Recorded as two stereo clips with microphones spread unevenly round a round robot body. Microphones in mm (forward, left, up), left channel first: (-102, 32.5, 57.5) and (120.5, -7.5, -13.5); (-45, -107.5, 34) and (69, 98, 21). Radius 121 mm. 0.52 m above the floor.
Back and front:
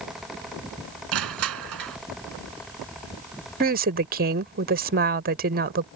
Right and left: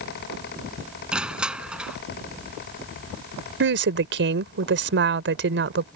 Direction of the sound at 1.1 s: 25° right.